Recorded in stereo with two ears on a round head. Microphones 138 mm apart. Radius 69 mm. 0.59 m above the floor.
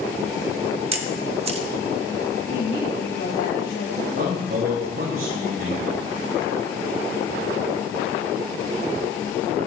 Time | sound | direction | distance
0.9 | a camera shutter | 40° right (ahead or behind) | 1.0 m
2.5 | a woman speaking | 70° left (ahead or behind) | 2.5 m
4.1 | a man speaking | 65° right (ahead or behind) | 5.5 m